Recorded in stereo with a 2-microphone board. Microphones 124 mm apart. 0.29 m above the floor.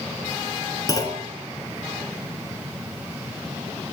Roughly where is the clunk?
Left.